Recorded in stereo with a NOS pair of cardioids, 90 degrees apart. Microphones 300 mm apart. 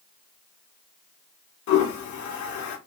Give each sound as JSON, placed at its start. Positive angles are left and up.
{"t": 1.7, "sound": "a toilet flushing", "azimuth_deg": 70, "distance_m": 1.4}